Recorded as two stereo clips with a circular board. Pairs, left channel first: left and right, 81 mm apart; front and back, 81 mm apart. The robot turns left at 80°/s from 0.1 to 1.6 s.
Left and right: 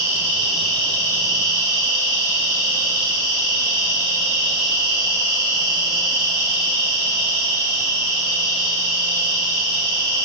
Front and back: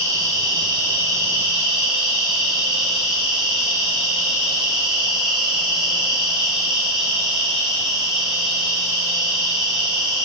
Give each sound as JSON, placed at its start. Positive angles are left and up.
{"t": 0.0, "sound": "an insect", "azimuth_deg": -140, "distance_m": 3.0}